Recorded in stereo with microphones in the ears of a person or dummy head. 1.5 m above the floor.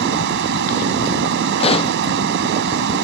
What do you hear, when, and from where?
0.0 s running water: 70° right (ahead or behind)
1.6 s a pop: 25° left (ahead or behind)